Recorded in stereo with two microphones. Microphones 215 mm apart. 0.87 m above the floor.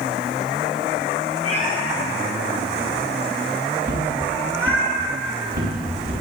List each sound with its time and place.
1.4 s a cat meowing: 35° left (ahead or behind), 5.5 m; by 4.8 s 10° right (ahead or behind), 6 m
3.8 s footsteps: 50° right (ahead or behind), 4 m